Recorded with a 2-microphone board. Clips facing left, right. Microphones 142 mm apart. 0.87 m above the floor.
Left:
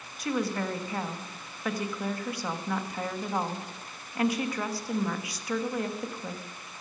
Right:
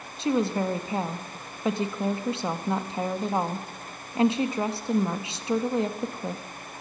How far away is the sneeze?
I don't hear a sneeze.